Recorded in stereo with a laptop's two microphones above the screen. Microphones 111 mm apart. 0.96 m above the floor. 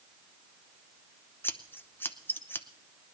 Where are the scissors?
20° left (ahead or behind), 0.7 m.